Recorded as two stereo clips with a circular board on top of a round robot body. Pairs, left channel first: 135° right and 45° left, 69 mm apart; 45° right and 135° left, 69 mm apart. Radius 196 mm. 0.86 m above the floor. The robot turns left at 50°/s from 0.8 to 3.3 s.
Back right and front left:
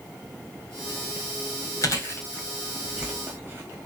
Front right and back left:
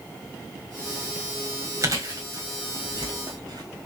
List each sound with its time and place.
1.8 s chewing: 175° right, 1.7 m; by 3.8 s 110° left, 1.7 m